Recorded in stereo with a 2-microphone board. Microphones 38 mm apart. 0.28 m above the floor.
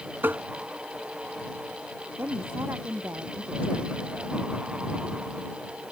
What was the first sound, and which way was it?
Tapping, 65° right (ahead or behind).